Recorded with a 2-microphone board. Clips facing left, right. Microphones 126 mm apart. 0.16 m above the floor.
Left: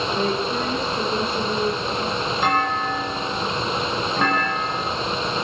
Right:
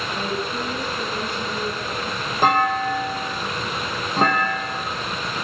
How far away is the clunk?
About 3 m.